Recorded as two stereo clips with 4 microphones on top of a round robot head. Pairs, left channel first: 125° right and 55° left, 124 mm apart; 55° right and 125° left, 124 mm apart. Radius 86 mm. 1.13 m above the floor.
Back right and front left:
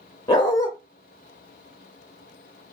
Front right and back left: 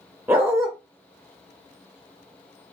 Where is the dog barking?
170° right, 0.5 m.